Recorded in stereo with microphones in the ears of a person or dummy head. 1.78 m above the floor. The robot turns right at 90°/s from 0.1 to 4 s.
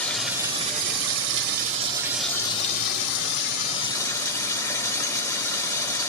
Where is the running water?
170° left, 0.8 m; by 6.1 s 160° left, 0.8 m.